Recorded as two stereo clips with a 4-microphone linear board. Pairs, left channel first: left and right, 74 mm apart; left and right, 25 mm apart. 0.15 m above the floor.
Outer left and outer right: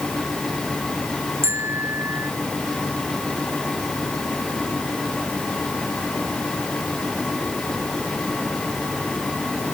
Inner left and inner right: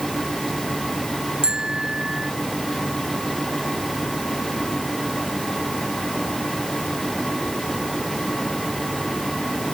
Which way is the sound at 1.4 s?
35° right (ahead or behind).